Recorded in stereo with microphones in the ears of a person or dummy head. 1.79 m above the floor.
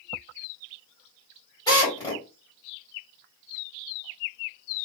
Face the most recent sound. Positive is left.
turn(degrees=20)  # may be behind; listen again after turning